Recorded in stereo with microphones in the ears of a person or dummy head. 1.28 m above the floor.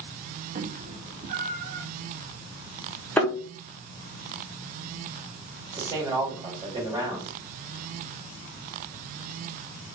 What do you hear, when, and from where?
0.6 s a cat meowing: 35° right (ahead or behind), 0.7 m; by 1.9 s 45° right (ahead or behind), 1.5 m
3.2 s a thud: 10° left (ahead or behind), 1.1 m
5.7 s a man speaking: 20° right (ahead or behind), 3 m